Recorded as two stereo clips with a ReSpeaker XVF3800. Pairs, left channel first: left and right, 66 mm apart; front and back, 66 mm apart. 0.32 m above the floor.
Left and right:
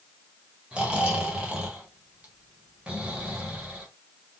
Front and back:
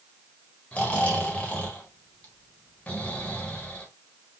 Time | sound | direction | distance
0.7 | snoring | 40° right | 1.4 m